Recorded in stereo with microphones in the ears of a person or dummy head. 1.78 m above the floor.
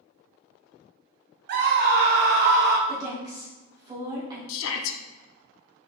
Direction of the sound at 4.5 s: 75° left (ahead or behind).